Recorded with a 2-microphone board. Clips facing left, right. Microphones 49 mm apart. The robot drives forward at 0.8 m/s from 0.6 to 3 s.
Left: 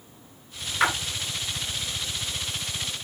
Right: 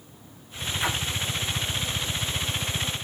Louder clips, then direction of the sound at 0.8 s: Left 6 dB; 65° left (ahead or behind).